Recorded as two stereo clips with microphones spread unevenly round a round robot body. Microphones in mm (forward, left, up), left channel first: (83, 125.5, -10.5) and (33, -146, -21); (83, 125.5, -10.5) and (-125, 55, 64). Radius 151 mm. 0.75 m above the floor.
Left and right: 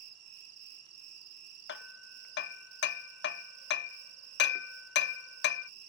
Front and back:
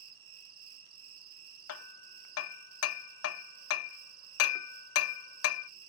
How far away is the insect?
About 2.5 m.